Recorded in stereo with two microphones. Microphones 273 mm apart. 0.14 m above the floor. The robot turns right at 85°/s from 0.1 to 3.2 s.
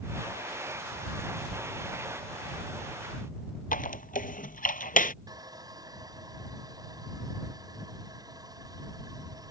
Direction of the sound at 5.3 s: 15° right (ahead or behind).